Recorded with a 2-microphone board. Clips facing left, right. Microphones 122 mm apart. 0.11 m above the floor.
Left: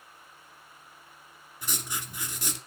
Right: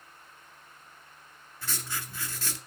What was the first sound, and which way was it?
Writing, 15° left (ahead or behind).